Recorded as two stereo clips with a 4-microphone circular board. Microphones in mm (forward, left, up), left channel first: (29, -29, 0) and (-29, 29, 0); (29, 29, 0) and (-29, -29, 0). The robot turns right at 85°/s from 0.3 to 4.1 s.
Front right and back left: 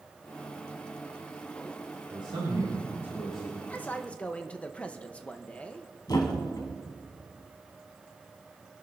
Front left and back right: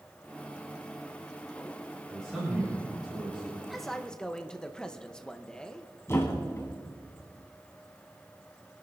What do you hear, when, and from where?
2.1 s a man speaking: 115° left, 5.5 m; by 3.6 s 115° right, 5.5 m
3.7 s a man speaking: 45° right, 0.9 m; by 5.9 s 10° right, 0.9 m
6.1 s a thud: 10° right, 2 m